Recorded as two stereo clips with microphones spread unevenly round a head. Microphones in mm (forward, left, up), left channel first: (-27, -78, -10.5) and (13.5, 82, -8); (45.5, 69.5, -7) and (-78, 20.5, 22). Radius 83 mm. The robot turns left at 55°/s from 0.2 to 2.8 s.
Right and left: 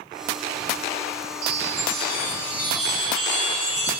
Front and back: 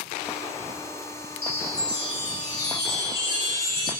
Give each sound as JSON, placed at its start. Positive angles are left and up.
{"t": 1.4, "sound": "a chime", "azimuth_deg": 105, "distance_m": 10.0}